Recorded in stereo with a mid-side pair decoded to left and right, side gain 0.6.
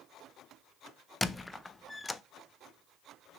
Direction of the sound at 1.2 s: 15° left.